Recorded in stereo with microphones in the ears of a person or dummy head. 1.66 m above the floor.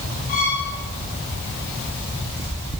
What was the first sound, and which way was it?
A violin, 45° left (ahead or behind).